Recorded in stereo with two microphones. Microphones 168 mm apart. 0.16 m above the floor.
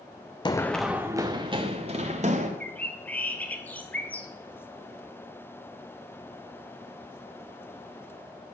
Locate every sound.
0.5 s running footsteps: 25° left (ahead or behind), 0.6 m; by 2.5 s 45° right (ahead or behind), 1.8 m
2.6 s a bird: 10° left (ahead or behind), 1.0 m